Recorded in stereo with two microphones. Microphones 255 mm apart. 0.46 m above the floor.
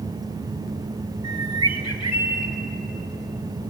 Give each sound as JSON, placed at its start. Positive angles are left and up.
{"t": 1.2, "sound": "a bird", "side_deg": -80, "distance_m": 1.8}